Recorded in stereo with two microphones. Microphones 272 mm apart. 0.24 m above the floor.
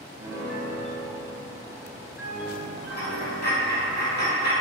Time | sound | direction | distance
0.2 | a piano | 70° right (ahead or behind) | 1.3 m
2.9 | a dropped coin | 85° left | 1.7 m